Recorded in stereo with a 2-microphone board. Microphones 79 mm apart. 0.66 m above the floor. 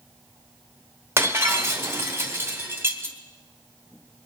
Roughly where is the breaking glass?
Right.